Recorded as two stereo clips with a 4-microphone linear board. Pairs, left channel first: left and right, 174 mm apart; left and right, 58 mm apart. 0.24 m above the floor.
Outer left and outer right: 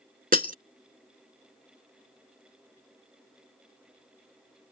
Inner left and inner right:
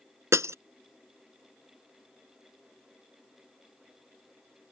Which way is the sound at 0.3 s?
55° right (ahead or behind).